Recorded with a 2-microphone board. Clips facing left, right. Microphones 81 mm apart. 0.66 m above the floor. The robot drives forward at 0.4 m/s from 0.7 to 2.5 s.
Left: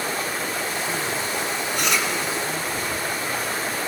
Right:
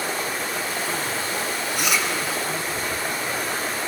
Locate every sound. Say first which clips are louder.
1.8 s chewing: even; 5° right (ahead or behind), 3.5 m